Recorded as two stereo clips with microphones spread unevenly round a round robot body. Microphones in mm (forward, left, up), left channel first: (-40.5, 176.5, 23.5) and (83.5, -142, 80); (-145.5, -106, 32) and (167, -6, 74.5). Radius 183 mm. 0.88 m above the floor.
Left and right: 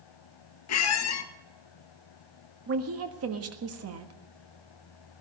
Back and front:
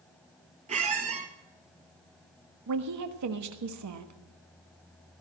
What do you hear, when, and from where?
0.7 s a squeak: 75° left, 1.1 m
2.7 s a woman speaking: 20° right, 1.5 m